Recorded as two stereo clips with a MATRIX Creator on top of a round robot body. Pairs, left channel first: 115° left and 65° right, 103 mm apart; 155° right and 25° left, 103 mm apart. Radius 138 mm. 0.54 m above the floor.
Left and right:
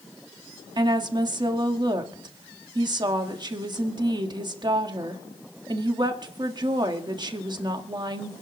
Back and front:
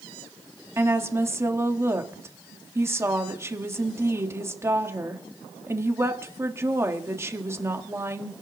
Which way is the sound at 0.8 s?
35° right.